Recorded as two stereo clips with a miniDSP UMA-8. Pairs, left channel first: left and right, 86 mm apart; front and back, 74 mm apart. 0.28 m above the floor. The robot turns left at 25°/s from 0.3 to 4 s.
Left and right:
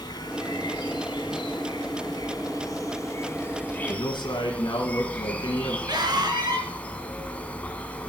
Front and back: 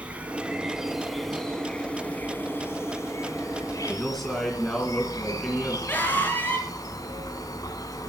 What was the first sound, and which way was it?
An insect, 110° left.